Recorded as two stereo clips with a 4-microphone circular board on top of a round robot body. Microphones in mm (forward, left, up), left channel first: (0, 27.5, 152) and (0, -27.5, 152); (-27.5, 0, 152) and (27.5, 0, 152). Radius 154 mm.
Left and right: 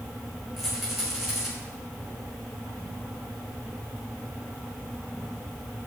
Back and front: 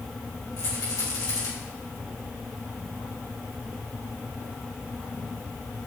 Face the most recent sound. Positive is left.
turn(degrees=-175)